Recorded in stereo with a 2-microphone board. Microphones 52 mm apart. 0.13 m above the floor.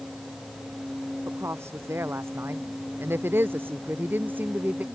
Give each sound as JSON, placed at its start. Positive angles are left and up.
{"t": 1.3, "sound": "a woman speaking", "side_deg": -60}